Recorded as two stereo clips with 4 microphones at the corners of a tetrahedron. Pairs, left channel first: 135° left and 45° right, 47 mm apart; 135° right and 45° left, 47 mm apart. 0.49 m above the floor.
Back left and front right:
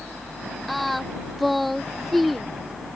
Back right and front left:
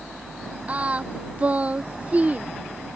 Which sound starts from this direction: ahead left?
Singing, at 0.7 s.